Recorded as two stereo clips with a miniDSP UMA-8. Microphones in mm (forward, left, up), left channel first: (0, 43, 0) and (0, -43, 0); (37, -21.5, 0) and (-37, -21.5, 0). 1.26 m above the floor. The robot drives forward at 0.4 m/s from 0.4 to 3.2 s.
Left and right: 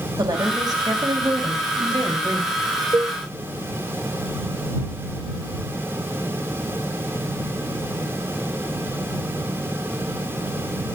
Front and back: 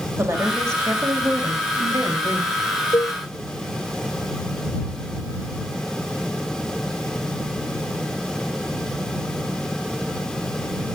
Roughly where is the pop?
No pop in this recording.